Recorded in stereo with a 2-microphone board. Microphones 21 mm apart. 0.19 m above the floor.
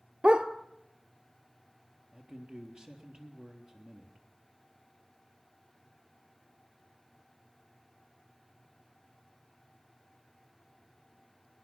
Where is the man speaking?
60° right (ahead or behind), 3.5 m.